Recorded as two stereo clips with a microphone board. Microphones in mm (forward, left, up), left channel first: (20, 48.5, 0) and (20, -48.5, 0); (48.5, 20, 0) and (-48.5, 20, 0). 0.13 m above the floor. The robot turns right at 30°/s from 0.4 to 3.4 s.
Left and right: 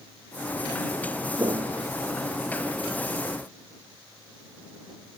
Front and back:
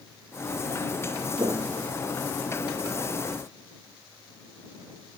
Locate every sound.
1.4 s footsteps: 145° right; by 3.0 s 25° right